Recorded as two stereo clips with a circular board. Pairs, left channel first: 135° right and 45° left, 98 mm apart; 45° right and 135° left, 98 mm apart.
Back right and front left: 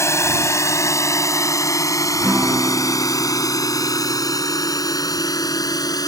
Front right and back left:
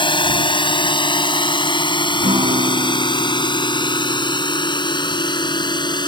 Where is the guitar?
125° left.